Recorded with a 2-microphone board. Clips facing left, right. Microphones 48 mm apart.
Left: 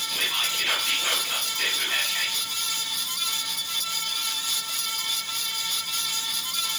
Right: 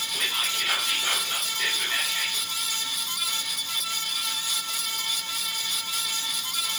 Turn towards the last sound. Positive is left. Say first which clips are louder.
# left 1 dB
turn(degrees=70)  # may be behind; listen again after turning